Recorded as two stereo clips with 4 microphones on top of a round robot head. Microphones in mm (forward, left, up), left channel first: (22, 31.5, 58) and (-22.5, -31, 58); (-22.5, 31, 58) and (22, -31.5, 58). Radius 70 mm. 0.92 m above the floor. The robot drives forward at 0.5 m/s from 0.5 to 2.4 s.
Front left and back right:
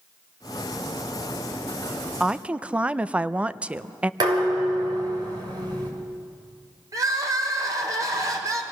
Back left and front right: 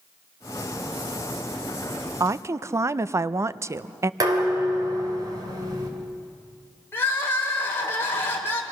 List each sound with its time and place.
2.2 s a woman speaking: 45° right, 0.5 m; by 4.1 s 60° right, 0.5 m
4.2 s dishes clattering: 95° right, 3 m
6.9 s crying: 175° right, 2.0 m